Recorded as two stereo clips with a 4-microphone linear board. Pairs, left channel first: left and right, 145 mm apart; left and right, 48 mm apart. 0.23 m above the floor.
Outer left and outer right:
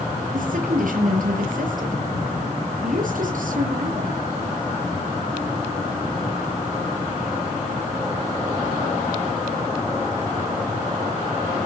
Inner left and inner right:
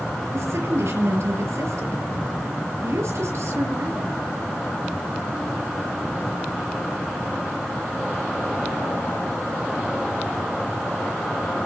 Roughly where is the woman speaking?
Right.